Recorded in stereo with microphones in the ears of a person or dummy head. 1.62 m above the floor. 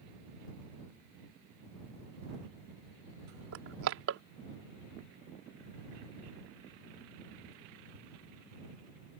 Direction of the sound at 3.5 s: 65° right (ahead or behind).